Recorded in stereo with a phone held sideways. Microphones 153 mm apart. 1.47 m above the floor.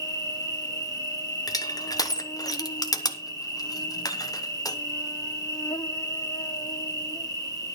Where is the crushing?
25° left (ahead or behind), 1.0 m.